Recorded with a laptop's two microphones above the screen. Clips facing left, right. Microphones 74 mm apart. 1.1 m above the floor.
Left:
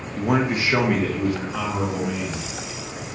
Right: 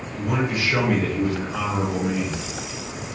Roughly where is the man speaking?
Left.